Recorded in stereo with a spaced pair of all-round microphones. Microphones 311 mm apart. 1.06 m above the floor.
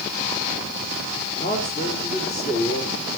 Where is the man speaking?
30° left (ahead or behind), 3.5 m.